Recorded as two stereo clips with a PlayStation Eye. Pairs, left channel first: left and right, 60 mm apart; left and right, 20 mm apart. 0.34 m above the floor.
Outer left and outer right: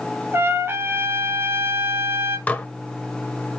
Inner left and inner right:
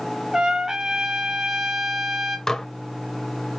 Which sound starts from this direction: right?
A trumpet, at 0.3 s.